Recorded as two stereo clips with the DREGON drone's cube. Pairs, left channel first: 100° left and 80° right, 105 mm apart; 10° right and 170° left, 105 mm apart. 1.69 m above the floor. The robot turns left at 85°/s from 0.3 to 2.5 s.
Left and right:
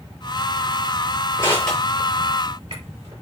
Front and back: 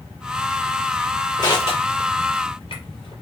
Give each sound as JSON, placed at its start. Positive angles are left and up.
{"t": 1.4, "sound": "crushing", "azimuth_deg": 45, "distance_m": 6.0}